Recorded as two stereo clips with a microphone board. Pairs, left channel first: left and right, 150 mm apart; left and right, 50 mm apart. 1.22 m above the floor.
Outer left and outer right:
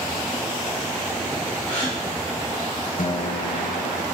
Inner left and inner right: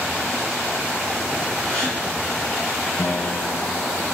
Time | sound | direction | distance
1.7 | a gasp | 15° left (ahead or behind) | 3 m
3.0 | a guitar | 60° left (ahead or behind) | 0.5 m